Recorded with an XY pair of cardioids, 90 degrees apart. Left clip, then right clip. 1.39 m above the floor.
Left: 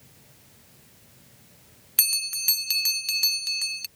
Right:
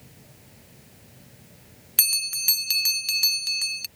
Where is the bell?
10° right.